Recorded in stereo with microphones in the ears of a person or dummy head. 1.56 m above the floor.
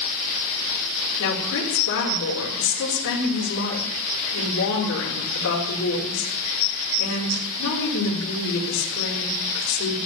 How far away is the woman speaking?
About 5 m.